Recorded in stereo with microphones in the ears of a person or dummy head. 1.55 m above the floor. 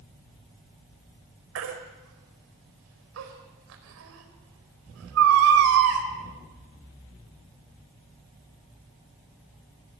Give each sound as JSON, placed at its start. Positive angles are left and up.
{"t": 1.6, "sound": "a baby crying", "side_deg": -75, "distance_m": 4.5}